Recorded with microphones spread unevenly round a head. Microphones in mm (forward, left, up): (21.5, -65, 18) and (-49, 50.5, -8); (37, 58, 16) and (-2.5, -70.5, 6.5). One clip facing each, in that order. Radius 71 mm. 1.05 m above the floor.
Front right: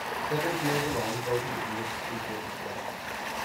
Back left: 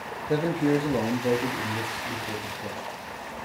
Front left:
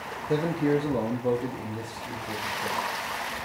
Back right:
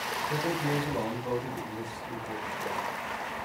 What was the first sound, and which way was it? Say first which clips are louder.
A man speaking: back left 6 dB, front left 7 dB; 85° left.